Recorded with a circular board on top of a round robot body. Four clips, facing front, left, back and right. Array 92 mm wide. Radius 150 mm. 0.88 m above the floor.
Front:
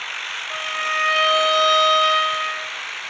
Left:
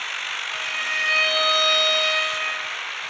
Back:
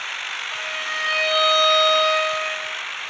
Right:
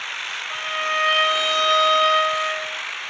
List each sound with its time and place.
0.5 s a violin: 50° right, 1.2 m